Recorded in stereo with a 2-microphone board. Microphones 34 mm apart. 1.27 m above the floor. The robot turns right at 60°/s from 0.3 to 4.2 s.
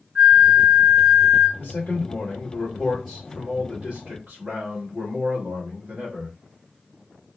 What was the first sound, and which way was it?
A flute, 35° right.